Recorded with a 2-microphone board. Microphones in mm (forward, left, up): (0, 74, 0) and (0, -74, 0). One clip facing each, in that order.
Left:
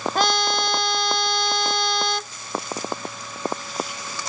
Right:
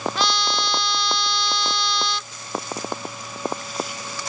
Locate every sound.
0.1 s a trumpet: 50° left (ahead or behind)